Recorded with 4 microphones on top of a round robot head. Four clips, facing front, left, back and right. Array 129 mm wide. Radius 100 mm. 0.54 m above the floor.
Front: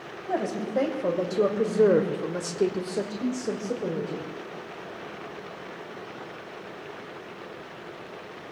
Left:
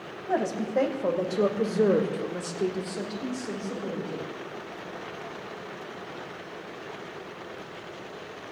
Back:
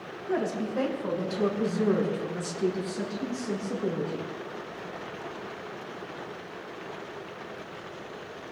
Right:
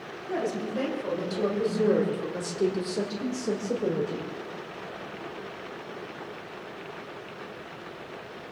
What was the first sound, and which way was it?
A woman speaking, 55° left.